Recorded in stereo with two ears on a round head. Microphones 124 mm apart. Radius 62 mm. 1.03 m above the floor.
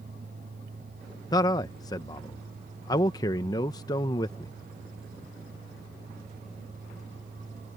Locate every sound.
1.3 s a man speaking: 25° left (ahead or behind)